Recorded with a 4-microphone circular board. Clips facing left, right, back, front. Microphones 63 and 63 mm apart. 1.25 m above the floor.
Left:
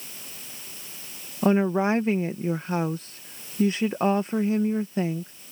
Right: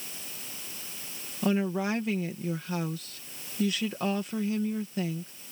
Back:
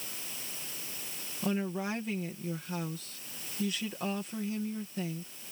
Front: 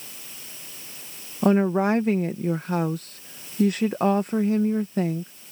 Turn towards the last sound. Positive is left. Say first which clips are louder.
# left 6 dB, front 13 dB
turn(degrees=35)